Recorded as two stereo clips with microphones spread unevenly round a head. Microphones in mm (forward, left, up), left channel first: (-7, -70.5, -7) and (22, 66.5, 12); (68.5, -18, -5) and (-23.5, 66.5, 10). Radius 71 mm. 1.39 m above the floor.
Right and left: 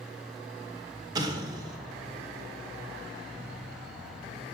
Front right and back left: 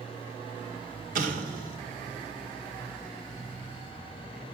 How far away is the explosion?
About 2 m.